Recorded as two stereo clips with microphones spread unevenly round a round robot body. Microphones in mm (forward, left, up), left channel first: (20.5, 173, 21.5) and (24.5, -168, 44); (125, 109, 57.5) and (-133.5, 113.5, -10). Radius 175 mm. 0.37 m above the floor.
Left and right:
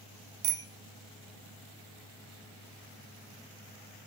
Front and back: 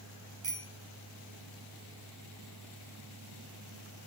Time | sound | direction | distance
0.4 | a bicycle bell | 120° right | 2 m